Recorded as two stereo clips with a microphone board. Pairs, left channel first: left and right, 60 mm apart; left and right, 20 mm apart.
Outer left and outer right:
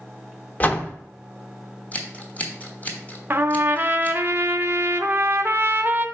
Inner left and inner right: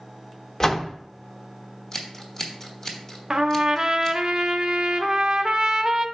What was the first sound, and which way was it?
A door slam, 30° left (ahead or behind).